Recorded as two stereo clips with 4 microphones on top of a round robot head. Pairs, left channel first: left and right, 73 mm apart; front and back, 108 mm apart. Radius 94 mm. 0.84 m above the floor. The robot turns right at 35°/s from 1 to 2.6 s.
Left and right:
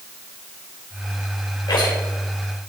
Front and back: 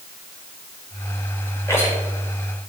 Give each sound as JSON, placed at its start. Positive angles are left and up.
{"t": 1.7, "sound": "a rattle", "azimuth_deg": 65, "distance_m": 3.0}